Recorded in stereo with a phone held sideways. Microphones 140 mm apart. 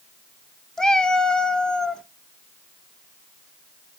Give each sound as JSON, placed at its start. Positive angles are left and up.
{"t": 0.8, "sound": "a cat meowing", "side_deg": 5, "distance_m": 0.7}